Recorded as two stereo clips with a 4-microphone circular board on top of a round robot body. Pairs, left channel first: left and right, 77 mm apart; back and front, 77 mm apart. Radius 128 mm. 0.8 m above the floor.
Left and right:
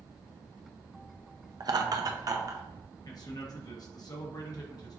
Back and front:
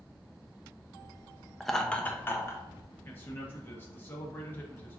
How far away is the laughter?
About 0.8 m.